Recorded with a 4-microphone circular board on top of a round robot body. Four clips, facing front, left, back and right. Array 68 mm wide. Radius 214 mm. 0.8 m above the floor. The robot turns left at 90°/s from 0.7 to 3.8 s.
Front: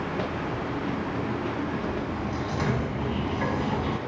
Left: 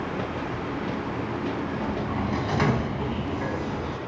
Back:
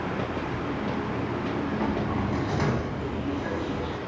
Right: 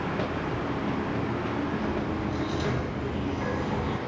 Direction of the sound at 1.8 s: 160° left.